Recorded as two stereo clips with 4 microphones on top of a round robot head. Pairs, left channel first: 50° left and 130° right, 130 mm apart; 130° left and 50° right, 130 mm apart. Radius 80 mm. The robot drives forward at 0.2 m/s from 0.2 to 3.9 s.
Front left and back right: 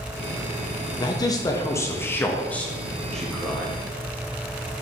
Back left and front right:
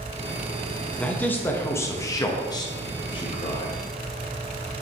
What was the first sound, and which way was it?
A man speaking, 55° left.